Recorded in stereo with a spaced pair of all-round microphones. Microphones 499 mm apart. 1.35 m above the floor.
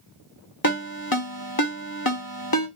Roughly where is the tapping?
No tapping in this recording.